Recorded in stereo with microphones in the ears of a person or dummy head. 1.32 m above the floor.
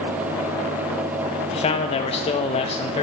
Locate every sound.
1.5 s a man speaking: 30° left (ahead or behind), 0.5 m